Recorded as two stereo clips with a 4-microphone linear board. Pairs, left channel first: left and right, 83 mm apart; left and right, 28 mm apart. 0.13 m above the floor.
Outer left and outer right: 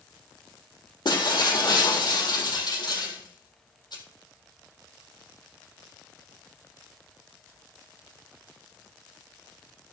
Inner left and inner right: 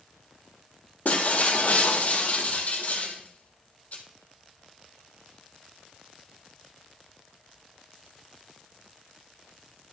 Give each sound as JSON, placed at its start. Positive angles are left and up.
{"t": 1.1, "sound": "breaking glass", "side_deg": 60, "distance_m": 1.9}